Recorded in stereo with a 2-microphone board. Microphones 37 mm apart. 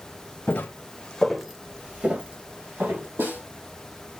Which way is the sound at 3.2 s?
75° right (ahead or behind).